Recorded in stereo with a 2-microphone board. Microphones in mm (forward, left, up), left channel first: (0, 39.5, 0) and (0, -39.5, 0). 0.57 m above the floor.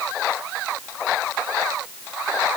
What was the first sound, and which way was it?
Only background noise.